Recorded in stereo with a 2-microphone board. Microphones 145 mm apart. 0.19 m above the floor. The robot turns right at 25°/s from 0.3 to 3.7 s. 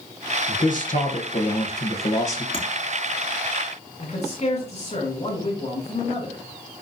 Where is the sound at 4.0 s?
50° left (ahead or behind), 2.5 m.